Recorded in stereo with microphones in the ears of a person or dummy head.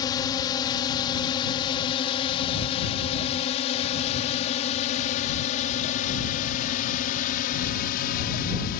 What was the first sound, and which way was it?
A drone, 25° left (ahead or behind).